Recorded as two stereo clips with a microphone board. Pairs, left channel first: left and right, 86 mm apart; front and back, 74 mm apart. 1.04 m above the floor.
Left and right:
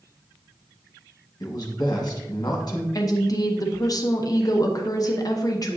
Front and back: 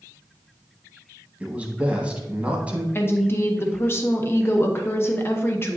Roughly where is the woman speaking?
Ahead left.